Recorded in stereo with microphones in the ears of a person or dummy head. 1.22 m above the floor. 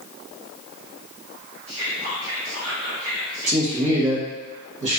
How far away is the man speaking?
About 0.8 m.